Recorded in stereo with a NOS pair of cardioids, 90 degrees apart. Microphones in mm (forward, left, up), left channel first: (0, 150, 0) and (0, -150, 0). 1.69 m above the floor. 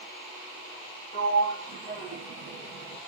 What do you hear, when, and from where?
1.1 s a sliding door: 30° right, 1.7 m